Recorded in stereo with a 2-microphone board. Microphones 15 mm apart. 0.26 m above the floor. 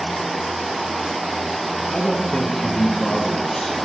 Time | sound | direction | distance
1.9 | a man speaking | 65° left (ahead or behind) | 4.5 m